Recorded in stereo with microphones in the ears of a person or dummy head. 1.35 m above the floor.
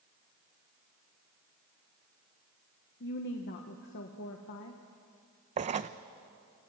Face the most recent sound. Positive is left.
turn(degrees=-35)  # may be behind; listen again after turning